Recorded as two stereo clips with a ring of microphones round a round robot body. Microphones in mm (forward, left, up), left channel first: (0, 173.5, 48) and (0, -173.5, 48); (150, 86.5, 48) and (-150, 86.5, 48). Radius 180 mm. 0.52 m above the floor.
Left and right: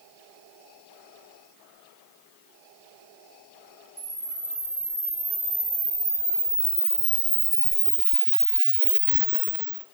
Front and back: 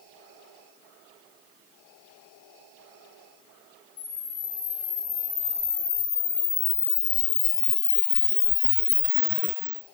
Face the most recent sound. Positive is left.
turn(degrees=-20)